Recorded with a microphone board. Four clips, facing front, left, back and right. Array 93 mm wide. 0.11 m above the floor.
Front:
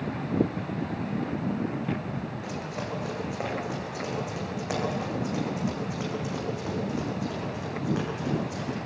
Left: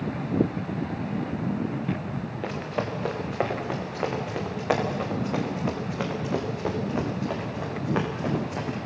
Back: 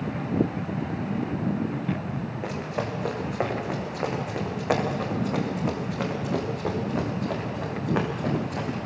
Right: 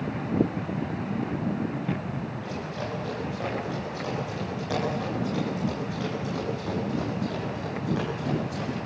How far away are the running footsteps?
About 3.5 m.